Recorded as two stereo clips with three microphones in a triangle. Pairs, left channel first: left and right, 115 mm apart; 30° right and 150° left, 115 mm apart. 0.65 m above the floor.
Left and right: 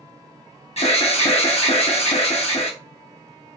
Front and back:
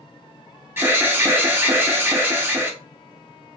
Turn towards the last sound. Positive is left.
turn(degrees=80)